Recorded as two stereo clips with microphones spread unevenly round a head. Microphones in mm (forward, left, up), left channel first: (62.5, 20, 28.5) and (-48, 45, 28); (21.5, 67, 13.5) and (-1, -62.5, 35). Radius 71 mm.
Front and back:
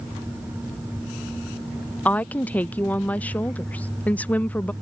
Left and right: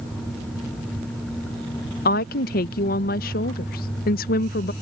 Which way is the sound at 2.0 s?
65° left.